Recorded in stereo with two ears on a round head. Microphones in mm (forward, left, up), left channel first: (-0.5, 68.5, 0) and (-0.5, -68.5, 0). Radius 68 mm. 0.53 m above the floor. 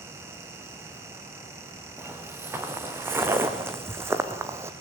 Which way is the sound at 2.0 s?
15° right (ahead or behind).